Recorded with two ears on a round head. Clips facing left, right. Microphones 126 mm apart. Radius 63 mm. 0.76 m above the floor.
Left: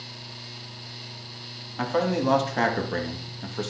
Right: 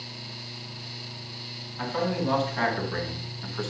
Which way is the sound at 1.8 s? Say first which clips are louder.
Left 4 dB; 60° left (ahead or behind).